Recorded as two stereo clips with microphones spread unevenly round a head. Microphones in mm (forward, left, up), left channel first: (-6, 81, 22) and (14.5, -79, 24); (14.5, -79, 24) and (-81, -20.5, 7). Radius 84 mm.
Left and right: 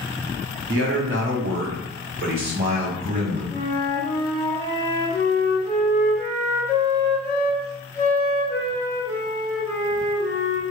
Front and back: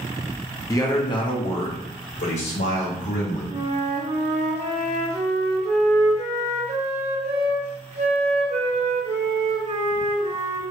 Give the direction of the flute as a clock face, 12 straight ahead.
6 o'clock.